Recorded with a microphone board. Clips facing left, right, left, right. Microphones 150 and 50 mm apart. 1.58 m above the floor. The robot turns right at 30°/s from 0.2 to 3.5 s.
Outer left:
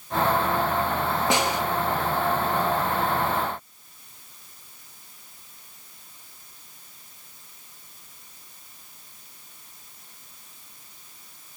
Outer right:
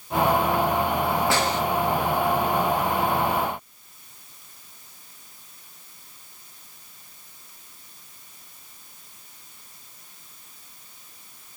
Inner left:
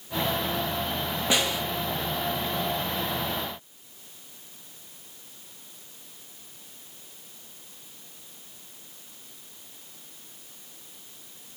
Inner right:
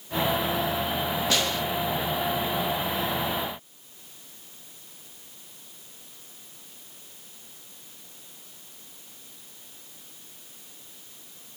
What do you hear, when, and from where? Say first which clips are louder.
1.3 s a snare drum: even, inner left 3 dB; 20° left (ahead or behind), 0.8 m; by 1.6 s 10° left (ahead or behind), 0.8 m